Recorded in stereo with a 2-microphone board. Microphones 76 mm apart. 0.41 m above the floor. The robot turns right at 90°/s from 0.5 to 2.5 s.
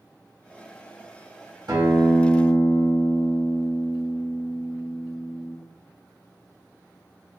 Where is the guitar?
65° right, 1.6 m; by 5.6 s 10° left, 1.6 m.